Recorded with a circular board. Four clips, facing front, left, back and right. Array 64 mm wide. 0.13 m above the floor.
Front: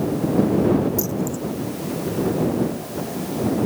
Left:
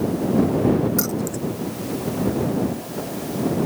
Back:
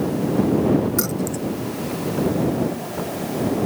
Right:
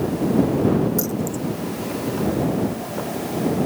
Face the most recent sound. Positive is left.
turn(degrees=145)